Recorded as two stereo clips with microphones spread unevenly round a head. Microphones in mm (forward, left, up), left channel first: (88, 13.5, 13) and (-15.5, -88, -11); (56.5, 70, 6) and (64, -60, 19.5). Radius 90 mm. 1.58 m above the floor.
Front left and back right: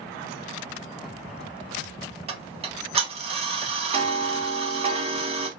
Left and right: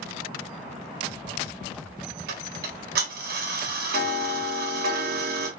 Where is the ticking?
80° right, 1.7 m.